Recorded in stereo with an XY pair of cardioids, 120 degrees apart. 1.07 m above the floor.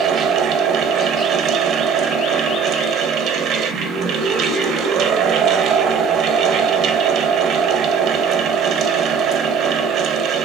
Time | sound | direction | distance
0.0 | a fan | 70° right | 0.9 m